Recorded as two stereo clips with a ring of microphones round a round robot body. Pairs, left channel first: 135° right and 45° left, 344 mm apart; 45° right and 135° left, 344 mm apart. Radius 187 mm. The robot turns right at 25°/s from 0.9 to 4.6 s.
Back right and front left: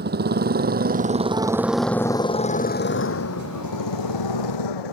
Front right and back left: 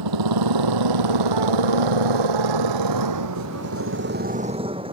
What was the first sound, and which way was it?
A motorcycle, 110° left.